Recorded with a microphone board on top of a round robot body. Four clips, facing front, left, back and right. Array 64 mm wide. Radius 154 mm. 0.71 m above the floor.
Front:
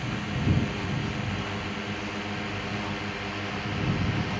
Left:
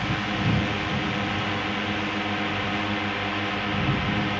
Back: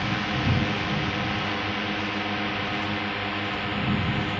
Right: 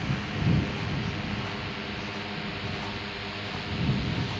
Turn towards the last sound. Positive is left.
turn(degrees=115)